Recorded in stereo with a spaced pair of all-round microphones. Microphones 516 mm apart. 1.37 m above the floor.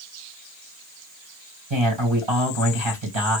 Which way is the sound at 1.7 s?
65° right (ahead or behind).